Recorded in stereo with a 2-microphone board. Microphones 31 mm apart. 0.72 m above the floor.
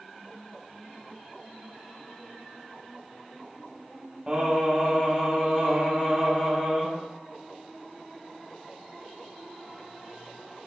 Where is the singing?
30° right (ahead or behind), 1.8 m.